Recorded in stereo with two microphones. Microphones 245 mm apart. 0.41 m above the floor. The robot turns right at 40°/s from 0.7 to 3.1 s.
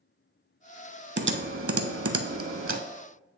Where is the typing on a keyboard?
45° right (ahead or behind), 0.5 m; by 2.8 s 55° right (ahead or behind), 0.5 m.